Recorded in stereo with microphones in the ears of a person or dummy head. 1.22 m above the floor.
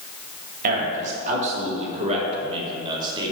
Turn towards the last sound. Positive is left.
turn(degrees=-20)  # may be behind; listen again after turning